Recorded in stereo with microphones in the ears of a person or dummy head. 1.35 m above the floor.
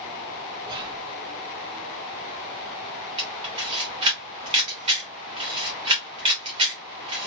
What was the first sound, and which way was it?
Whispering, 25° right (ahead or behind).